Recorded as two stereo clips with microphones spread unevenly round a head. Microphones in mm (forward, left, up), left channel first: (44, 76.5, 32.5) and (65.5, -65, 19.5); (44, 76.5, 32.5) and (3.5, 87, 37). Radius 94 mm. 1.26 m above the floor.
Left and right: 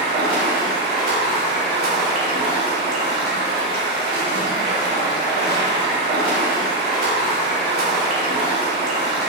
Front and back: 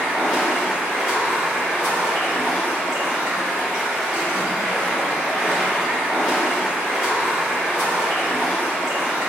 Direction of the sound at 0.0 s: 85° right.